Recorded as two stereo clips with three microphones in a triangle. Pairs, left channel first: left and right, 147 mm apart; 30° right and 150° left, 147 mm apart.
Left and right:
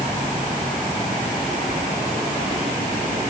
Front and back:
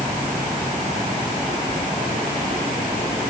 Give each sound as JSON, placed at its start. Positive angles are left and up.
{"t": 1.7, "sound": "keys jangling", "azimuth_deg": -120}